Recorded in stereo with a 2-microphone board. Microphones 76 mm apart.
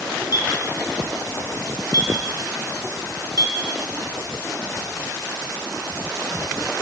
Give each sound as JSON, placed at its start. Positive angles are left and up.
{"t": 0.3, "sound": "a clink", "side_deg": 60, "distance_m": 1.3}